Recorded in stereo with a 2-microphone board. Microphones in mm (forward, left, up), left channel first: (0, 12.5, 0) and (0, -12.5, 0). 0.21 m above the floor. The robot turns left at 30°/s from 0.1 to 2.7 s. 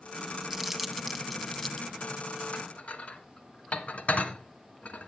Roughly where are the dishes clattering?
Left.